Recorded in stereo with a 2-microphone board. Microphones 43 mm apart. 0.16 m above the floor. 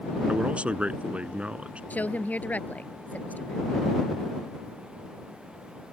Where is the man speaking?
30° right (ahead or behind).